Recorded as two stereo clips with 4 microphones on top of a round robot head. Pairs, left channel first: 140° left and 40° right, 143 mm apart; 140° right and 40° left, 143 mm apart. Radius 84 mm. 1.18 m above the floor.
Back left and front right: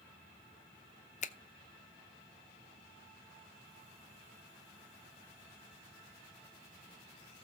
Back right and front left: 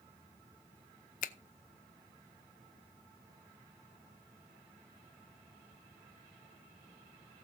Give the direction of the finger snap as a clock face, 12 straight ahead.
6 o'clock.